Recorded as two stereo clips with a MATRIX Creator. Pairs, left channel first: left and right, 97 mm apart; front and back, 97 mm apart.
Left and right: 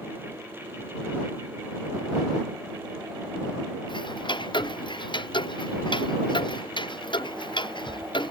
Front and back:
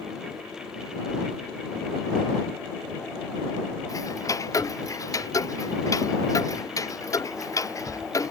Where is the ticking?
55° left.